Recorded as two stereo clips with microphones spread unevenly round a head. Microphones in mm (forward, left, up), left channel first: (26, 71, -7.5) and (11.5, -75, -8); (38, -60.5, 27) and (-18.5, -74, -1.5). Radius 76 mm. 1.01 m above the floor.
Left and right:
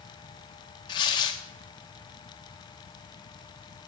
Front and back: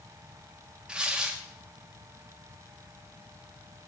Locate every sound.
0.9 s tearing paper: 140° left, 0.7 m